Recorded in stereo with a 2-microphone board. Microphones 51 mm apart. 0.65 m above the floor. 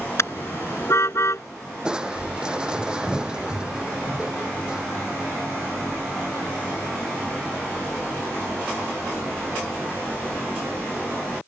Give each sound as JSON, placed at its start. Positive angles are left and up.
{"t": 0.2, "sound": "a car horn", "side_deg": 60}
{"t": 1.9, "sound": "crushing", "side_deg": -15}